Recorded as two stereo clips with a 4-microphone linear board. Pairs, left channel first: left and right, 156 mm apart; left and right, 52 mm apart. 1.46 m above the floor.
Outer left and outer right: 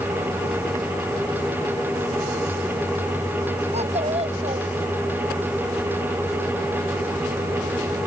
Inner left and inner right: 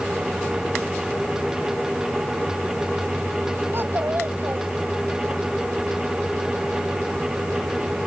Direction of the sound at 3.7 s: 45° right (ahead or behind).